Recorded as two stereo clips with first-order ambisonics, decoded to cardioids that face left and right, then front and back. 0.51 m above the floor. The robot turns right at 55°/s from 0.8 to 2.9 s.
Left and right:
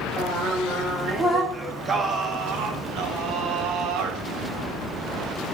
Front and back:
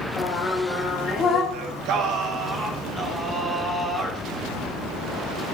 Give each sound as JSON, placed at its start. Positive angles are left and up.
{"t": 0.2, "sound": "singing", "azimuth_deg": -30, "distance_m": 0.8}
{"t": 1.5, "sound": "singing", "azimuth_deg": 180, "distance_m": 0.5}